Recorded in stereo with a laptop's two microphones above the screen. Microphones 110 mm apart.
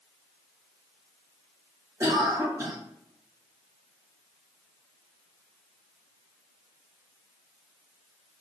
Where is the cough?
30° right (ahead or behind), 1.5 m.